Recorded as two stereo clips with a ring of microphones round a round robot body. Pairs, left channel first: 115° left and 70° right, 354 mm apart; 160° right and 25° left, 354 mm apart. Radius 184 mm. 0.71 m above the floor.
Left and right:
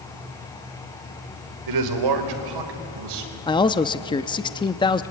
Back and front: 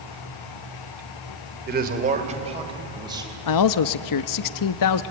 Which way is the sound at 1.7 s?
40° right.